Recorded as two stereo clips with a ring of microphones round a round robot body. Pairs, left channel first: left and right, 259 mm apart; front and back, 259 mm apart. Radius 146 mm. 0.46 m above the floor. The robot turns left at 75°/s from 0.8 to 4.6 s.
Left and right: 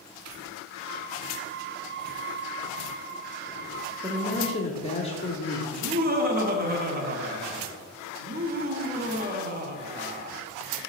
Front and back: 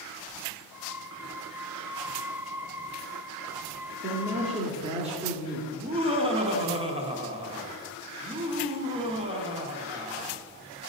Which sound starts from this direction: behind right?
Laughter, at 5.7 s.